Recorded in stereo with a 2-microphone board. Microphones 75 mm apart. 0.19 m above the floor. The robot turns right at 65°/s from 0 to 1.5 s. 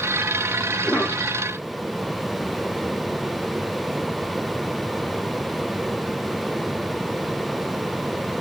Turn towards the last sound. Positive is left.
turn(degrees=55)